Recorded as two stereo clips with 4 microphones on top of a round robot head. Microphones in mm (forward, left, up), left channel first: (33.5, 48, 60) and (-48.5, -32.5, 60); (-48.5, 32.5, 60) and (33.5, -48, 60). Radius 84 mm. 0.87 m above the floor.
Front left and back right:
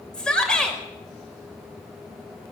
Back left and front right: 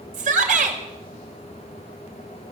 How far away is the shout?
About 5 m.